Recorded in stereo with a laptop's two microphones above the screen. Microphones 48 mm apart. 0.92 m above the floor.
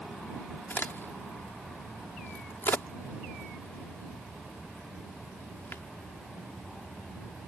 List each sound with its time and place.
0.7 s a crack: 50° left (ahead or behind)